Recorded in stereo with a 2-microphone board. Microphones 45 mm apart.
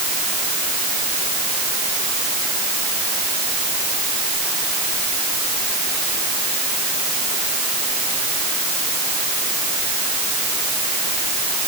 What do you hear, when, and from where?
Only background noise.